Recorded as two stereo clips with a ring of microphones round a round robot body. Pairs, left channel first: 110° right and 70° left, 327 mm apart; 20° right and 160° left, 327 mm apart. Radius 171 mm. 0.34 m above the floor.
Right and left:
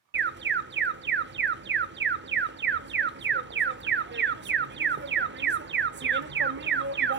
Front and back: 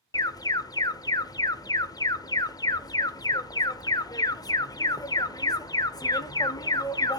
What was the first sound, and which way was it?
An alarm, 50° left.